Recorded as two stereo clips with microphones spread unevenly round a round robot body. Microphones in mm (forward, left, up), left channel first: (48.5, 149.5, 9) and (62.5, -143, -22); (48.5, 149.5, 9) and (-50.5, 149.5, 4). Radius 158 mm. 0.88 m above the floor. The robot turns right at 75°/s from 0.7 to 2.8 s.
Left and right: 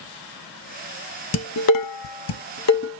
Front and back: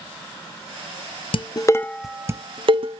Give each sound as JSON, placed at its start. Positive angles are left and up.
{"t": 1.3, "sound": "dishes clattering", "azimuth_deg": 40, "distance_m": 0.5}